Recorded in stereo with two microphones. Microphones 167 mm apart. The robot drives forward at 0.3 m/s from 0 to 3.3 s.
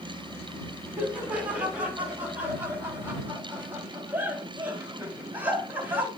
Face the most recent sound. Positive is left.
turn(degrees=-10)  # may be behind; listen again after turning